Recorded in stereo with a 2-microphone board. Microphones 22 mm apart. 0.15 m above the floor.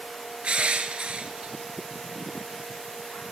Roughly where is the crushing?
Right.